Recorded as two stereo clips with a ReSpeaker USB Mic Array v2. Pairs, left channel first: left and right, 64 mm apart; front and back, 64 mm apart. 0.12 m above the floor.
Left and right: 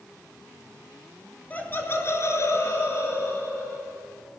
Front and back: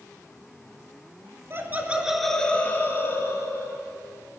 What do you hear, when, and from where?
1.5 s laughter: 145° left, 1.6 m; by 3.8 s 40° left, 3.5 m